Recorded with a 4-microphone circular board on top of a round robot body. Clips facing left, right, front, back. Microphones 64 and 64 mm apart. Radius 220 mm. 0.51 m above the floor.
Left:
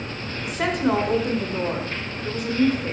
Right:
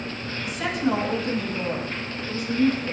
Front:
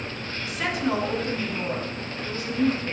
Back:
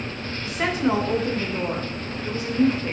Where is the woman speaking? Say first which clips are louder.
Left 3 dB, back 4 dB; 120° left, 3 m.